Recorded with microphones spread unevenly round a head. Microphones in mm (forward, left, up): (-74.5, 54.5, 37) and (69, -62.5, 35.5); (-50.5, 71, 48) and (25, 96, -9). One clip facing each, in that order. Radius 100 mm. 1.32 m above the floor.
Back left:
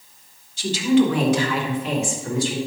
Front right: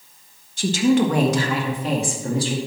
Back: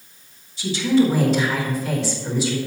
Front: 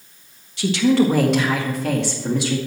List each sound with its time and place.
0.6 s a woman speaking: 5° left, 1.2 m; by 2.6 s 20° left, 2 m